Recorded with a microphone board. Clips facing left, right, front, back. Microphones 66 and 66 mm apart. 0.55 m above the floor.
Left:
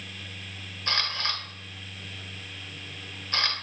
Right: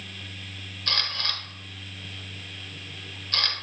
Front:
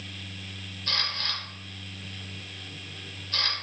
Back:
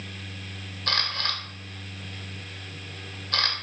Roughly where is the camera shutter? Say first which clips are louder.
Left 1 dB, back 4 dB; behind.